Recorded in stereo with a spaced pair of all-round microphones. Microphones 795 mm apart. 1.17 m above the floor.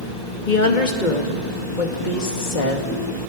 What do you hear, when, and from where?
0.5 s a woman speaking: 70° left (ahead or behind), 2 m